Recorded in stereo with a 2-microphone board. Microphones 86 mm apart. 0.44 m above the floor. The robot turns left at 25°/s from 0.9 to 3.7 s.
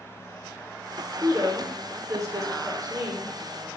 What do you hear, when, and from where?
1.2 s a woman speaking: 30° right (ahead or behind), 0.9 m; by 3.7 s 35° right (ahead or behind), 0.9 m